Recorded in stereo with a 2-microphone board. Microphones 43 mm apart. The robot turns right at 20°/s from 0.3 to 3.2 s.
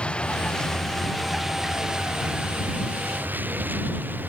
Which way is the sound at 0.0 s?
25° left (ahead or behind).